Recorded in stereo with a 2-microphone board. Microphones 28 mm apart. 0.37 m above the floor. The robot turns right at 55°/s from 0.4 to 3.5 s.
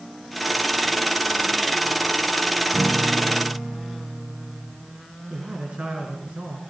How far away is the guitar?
About 8 m.